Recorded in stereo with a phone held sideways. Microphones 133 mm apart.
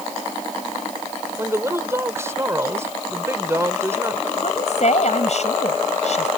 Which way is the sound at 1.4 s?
20° right (ahead or behind).